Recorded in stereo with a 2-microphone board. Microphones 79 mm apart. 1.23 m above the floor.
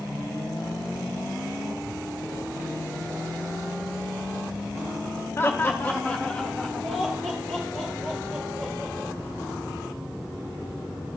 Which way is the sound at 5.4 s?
30° left (ahead or behind).